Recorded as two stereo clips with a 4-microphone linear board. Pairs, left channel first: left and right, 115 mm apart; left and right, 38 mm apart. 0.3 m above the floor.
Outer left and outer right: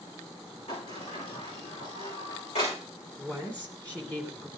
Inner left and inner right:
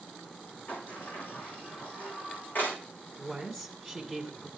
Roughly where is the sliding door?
Left.